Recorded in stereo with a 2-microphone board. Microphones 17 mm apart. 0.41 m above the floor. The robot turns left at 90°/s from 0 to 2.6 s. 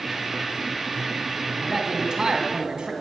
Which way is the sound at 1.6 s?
5° right.